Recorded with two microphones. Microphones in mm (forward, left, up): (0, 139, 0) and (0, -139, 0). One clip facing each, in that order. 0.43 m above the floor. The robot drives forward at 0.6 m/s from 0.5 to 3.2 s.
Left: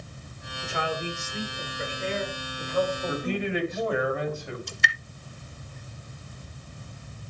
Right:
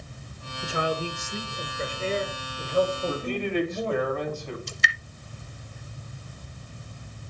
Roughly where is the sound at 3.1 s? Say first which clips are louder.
Even; centre.